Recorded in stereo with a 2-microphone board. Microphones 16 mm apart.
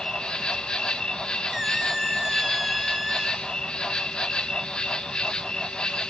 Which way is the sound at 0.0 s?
60° left (ahead or behind).